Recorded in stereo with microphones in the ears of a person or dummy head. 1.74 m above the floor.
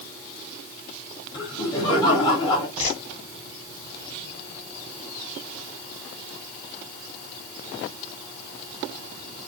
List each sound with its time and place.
1.3 s laughter: 30° left (ahead or behind), 2.5 m
2.8 s a whoosh: 45° left (ahead or behind), 1.7 m